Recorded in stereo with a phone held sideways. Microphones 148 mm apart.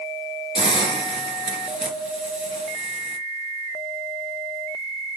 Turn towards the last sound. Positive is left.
turn(degrees=30)  # may be behind; listen again after turning